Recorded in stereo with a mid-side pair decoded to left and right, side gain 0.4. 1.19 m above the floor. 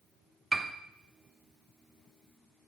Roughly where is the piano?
Ahead right.